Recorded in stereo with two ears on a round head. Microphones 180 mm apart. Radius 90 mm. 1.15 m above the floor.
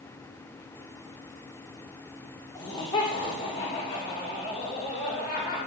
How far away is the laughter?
About 4 m.